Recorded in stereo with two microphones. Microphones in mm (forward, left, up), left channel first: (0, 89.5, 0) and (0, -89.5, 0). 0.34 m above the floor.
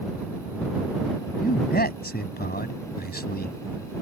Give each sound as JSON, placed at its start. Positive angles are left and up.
{"t": 1.4, "sound": "a man speaking", "side_deg": 60}